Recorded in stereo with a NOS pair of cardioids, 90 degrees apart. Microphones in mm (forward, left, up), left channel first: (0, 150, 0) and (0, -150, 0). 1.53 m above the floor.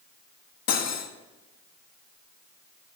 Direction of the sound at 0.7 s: 55° left.